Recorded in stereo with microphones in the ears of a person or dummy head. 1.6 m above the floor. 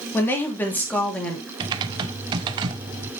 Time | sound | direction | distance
0.1 | a woman speaking | 15° left (ahead or behind) | 3.5 m
1.6 | typing on a keyboard | 25° right (ahead or behind) | 1.1 m